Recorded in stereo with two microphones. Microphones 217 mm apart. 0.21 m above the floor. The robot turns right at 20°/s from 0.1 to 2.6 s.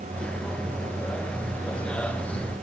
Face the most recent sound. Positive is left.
No sound to turn to.